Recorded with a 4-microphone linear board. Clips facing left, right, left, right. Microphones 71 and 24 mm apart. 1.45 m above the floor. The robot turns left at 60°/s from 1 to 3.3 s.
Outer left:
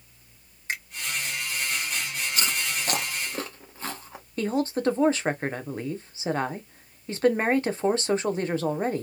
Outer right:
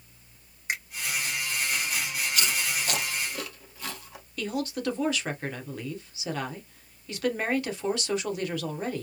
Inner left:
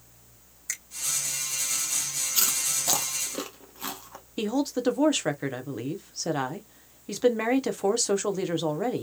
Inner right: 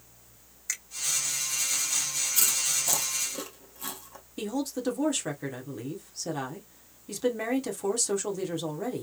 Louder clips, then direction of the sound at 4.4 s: Outer left 5 dB, inner left 5 dB; 35° left (ahead or behind).